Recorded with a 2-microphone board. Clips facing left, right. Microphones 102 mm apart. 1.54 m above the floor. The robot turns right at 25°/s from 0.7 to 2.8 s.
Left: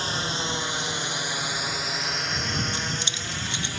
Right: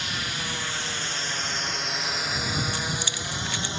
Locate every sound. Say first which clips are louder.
0.0 s a drone: left 4 dB; 35° left (ahead or behind); by 3.8 s 25° right (ahead or behind)
2.7 s keys jangling: right 1 dB; 20° left (ahead or behind)